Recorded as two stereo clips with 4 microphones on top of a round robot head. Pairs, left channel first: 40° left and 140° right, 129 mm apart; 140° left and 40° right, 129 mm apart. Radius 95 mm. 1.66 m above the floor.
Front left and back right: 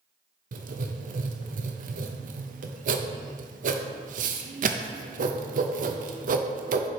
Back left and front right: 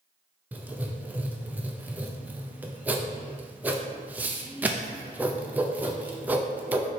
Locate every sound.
0.5 s writing: 115° right, 0.7 m